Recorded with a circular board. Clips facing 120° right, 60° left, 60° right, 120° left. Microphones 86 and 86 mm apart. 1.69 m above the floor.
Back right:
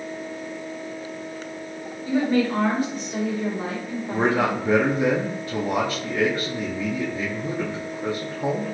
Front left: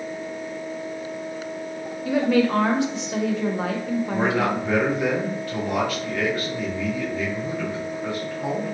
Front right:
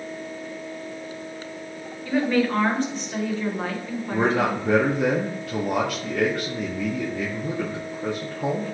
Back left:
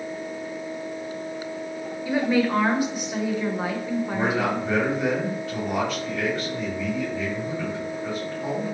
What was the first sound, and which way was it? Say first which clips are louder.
A woman speaking: front left 1 dB, even; 40° left.